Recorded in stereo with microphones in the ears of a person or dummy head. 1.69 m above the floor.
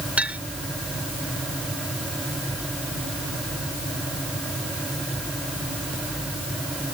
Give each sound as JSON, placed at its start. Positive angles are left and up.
{"t": 0.2, "sound": "a clink", "side_deg": -5}